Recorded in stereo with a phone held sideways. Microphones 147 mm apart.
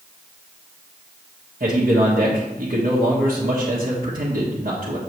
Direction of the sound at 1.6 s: 65° right (ahead or behind).